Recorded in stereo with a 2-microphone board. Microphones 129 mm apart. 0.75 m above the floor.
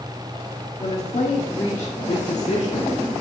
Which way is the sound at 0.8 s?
45° left (ahead or behind).